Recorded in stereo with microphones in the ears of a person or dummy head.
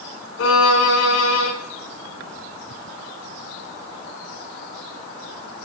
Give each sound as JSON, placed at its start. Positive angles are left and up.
{"t": 0.4, "sound": "a violin", "side_deg": 80, "distance_m": 4.0}